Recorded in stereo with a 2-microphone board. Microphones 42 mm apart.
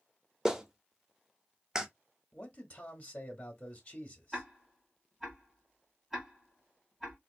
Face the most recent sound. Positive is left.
turn(degrees=-5)  # may be behind; listen again after turning